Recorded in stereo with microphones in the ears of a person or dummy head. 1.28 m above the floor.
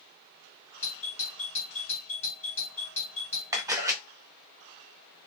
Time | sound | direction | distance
0.8 | a doorbell | 10° left (ahead or behind) | 1.1 m
3.5 | a camera shutter | 15° right (ahead or behind) | 0.5 m